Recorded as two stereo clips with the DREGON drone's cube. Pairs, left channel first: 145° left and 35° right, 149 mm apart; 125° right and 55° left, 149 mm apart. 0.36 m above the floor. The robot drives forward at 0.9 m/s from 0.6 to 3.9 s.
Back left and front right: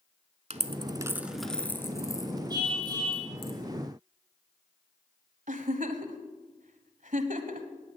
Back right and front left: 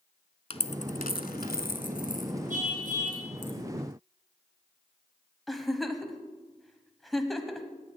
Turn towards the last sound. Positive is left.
turn(degrees=-35)